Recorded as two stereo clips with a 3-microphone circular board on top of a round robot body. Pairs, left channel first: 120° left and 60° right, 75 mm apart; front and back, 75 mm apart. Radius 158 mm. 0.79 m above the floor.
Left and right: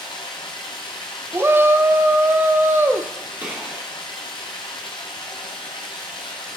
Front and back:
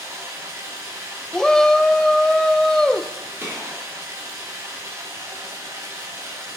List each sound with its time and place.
0.0 s running water: 125° left, 0.8 m
1.3 s a shout: 75° right, 0.6 m
3.4 s a gunshot: 120° right, 2 m